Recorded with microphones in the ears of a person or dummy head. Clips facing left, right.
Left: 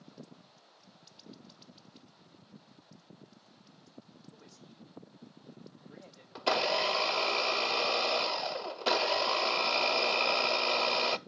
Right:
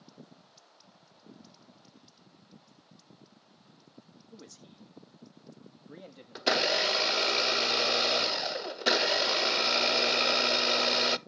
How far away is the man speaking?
About 3.5 m.